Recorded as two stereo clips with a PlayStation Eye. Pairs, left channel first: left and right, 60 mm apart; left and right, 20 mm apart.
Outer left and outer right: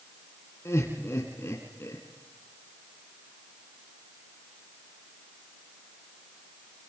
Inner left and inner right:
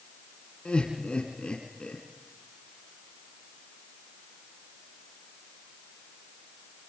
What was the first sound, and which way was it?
Laughter, 50° left (ahead or behind).